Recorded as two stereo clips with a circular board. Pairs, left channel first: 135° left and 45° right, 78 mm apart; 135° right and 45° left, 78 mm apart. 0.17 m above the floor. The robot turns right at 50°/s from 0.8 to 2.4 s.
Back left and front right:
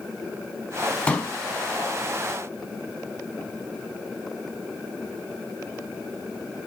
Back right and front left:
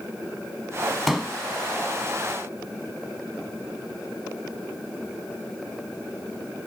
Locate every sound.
1.1 s a pop: 125° left, 0.7 m; by 1.3 s 140° left, 0.7 m